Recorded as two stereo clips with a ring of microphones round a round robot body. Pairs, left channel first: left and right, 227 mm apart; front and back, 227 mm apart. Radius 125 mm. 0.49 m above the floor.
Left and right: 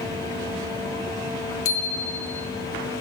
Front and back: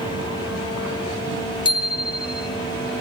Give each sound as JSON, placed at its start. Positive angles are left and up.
{"t": 1.6, "sound": "a bicycle bell", "azimuth_deg": 70, "distance_m": 2.0}